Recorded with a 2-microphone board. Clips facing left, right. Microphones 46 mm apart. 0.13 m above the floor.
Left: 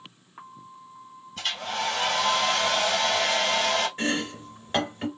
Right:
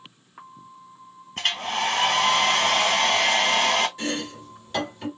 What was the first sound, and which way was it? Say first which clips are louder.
A hair dryer: right 4 dB; 50° right (ahead or behind).